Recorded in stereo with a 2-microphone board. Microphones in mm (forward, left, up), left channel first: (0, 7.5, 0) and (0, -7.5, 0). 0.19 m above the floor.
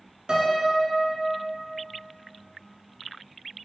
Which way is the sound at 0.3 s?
55° right (ahead or behind).